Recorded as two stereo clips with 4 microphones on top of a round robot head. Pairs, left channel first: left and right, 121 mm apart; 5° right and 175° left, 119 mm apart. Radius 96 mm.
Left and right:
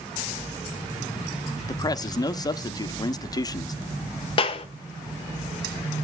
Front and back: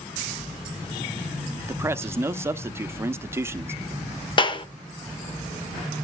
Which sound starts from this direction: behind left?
A man speaking, at 1.7 s.